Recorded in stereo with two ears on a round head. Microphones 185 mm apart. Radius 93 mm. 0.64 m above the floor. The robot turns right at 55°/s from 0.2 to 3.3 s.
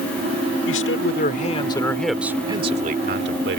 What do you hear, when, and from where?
0.7 s a man speaking: 100° left; by 3.6 s 115° right